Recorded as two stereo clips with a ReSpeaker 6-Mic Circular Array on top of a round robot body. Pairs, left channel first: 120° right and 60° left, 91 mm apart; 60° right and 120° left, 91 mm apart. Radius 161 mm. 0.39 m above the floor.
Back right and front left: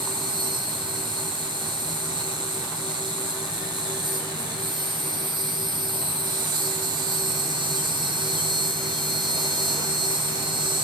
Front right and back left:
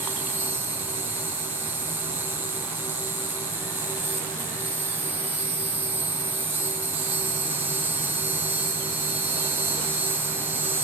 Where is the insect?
55° left, 1.1 m.